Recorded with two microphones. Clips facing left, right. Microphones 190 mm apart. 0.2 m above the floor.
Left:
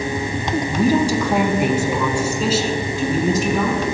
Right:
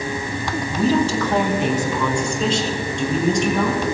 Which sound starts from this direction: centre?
A woman speaking, at 0.7 s.